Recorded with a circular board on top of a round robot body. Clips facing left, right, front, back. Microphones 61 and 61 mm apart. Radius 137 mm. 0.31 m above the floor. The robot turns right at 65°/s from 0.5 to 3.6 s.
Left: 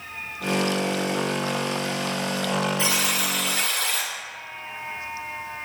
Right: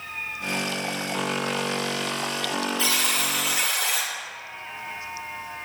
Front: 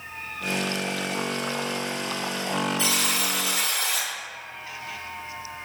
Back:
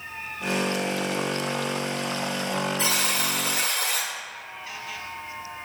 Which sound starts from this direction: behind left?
A buzzer, at 2.8 s.